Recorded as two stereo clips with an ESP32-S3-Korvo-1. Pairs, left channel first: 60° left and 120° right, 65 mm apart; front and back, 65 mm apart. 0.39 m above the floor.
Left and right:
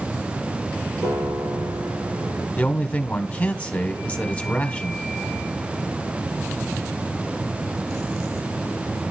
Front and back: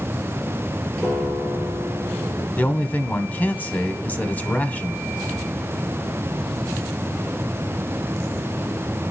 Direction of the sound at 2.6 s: 20° left.